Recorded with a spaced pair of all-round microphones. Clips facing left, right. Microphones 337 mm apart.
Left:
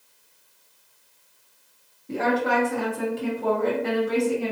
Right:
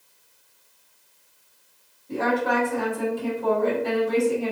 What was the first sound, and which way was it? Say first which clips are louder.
A woman speaking: even; 75° left (ahead or behind).